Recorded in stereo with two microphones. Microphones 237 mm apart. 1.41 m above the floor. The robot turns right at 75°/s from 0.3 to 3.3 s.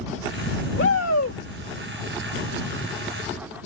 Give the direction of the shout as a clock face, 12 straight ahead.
10 o'clock.